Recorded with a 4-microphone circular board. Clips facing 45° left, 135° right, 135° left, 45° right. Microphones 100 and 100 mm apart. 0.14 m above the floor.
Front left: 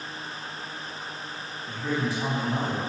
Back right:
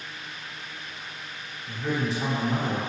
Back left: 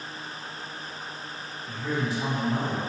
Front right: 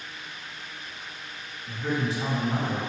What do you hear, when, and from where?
1.7 s a man speaking: 85° right, 1.9 m